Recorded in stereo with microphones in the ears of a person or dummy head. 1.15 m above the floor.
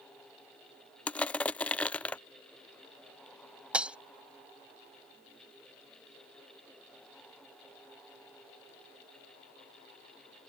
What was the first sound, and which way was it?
Crushing, 5° left (ahead or behind).